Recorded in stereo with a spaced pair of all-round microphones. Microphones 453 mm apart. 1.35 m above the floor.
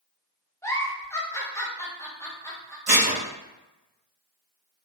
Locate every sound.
0.6 s a giggle: 5° left (ahead or behind), 0.5 m
2.9 s dishes clattering: 55° right (ahead or behind), 0.8 m